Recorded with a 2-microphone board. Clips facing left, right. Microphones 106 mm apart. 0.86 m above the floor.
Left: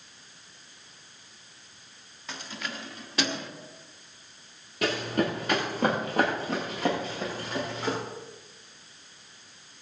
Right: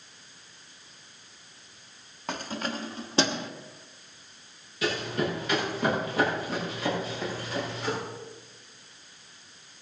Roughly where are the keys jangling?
Right.